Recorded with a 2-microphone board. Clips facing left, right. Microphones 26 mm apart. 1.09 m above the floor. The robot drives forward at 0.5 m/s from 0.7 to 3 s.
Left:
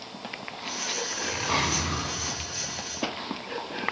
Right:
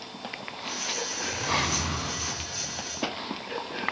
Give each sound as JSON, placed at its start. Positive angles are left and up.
{"t": 1.1, "sound": "a zipper", "side_deg": 45, "distance_m": 4.5}